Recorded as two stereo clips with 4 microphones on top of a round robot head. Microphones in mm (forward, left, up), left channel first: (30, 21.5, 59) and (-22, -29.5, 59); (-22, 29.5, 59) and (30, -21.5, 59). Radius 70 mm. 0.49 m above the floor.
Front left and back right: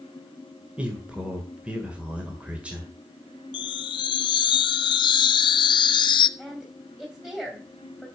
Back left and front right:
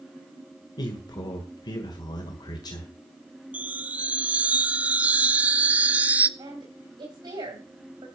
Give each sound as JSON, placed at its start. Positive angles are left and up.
{"t": 0.8, "sound": "a man speaking", "azimuth_deg": 150, "distance_m": 1.8}
{"t": 3.5, "sound": "a chime", "azimuth_deg": 30, "distance_m": 0.6}
{"t": 6.4, "sound": "a woman speaking", "azimuth_deg": -50, "distance_m": 3.5}